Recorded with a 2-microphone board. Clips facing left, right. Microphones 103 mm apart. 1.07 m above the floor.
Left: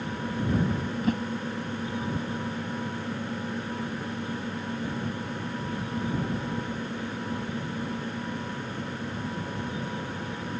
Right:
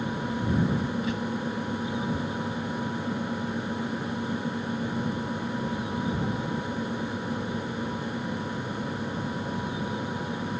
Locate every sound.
1.0 s a whoosh: 50° left (ahead or behind)